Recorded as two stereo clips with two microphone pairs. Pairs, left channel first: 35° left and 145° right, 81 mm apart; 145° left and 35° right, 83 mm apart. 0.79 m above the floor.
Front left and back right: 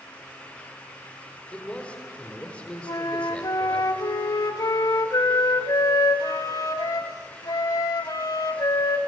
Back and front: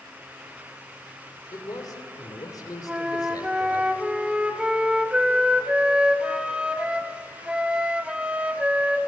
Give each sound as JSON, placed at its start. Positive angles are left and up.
{"t": 1.5, "sound": "a man speaking", "azimuth_deg": 110, "distance_m": 2.5}
{"t": 2.9, "sound": "a flute", "azimuth_deg": 40, "distance_m": 0.8}